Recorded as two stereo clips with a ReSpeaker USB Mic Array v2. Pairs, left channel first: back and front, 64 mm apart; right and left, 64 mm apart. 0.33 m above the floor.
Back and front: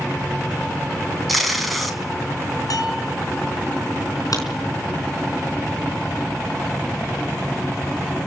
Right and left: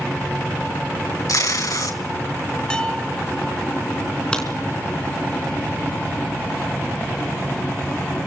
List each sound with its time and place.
1.3 s tape being pulled: 90° right, 3.5 m
2.7 s a bell: 165° right, 4 m
4.3 s a crack: 165° right, 3.5 m